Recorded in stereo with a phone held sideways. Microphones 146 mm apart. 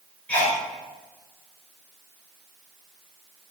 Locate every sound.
0.3 s a sneeze: 10° left (ahead or behind), 4 m